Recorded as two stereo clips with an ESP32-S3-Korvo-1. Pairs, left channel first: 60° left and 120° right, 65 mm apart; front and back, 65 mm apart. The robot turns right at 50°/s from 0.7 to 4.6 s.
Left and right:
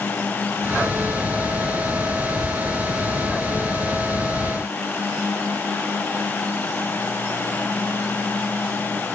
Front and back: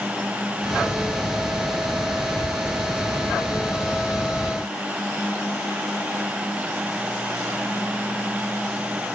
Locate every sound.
Only background noise.